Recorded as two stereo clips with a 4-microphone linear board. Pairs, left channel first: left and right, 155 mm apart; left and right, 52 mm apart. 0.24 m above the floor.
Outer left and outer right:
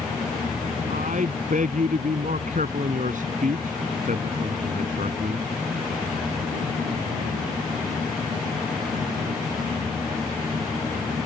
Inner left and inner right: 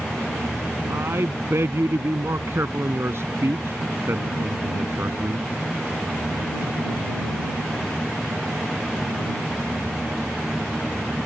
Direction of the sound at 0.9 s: 60° right (ahead or behind).